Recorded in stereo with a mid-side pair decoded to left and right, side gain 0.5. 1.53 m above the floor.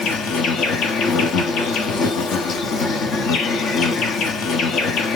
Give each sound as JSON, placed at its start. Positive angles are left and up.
{"t": 0.0, "sound": "an insect", "azimuth_deg": 65, "distance_m": 0.8}